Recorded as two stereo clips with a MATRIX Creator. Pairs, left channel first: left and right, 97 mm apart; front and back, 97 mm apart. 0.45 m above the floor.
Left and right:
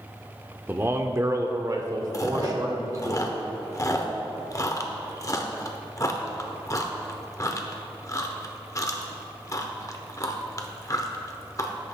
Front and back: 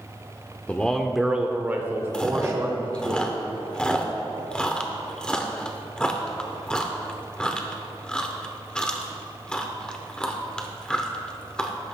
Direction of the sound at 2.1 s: 75° left.